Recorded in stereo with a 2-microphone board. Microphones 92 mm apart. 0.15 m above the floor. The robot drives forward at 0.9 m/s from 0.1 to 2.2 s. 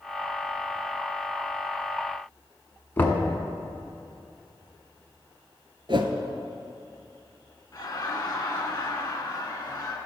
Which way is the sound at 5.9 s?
60° right (ahead or behind).